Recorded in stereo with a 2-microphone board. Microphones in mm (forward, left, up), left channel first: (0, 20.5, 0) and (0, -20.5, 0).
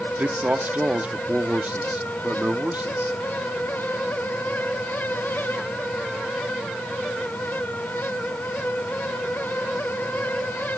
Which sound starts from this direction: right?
A man speaking, at 0.2 s.